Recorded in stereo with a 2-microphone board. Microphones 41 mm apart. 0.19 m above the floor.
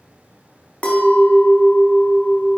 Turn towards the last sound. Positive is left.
turn(degrees=30)  # may be behind; listen again after turning